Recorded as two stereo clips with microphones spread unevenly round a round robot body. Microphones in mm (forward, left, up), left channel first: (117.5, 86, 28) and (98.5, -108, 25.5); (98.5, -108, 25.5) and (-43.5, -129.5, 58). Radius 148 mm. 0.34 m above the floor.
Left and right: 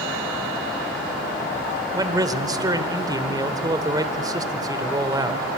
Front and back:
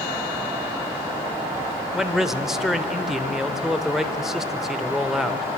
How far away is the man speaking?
About 1.2 m.